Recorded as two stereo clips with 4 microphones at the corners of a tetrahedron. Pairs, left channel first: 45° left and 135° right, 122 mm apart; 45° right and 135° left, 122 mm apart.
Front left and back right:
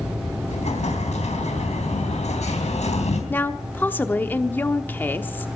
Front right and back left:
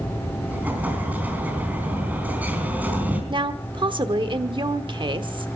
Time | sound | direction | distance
0.5 | an explosion | 60° left | 4 m
3.3 | a woman speaking | 110° left | 1.0 m